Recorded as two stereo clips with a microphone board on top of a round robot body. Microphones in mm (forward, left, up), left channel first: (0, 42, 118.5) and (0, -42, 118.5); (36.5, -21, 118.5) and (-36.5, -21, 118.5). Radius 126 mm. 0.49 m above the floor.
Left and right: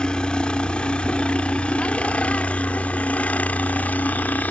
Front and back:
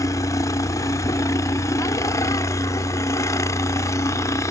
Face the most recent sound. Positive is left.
turn(degrees=25)